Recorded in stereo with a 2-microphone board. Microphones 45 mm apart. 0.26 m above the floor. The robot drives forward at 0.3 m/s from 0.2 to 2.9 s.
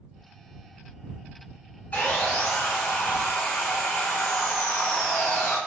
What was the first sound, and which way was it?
Sawing, 35° left (ahead or behind).